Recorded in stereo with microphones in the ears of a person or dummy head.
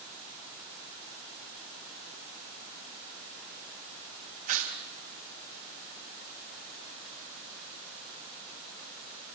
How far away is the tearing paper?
About 3.5 m.